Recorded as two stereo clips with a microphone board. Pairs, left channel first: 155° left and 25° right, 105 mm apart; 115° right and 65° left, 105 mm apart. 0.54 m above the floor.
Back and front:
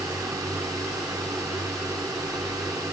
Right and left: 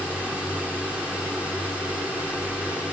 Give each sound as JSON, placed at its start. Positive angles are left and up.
{"t": 0.0, "sound": "a drone", "azimuth_deg": -5}